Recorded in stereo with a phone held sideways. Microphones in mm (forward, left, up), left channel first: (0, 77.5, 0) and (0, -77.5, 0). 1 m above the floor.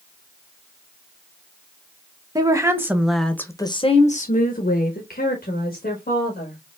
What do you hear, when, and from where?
2.4 s a woman speaking: 25° right (ahead or behind), 1.0 m; by 6.6 s 70° left (ahead or behind), 1.8 m